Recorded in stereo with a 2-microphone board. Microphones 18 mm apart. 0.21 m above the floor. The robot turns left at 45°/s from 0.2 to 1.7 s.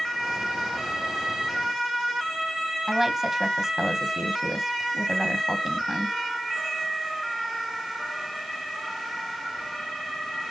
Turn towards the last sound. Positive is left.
turn(degrees=-20)  # may be behind; listen again after turning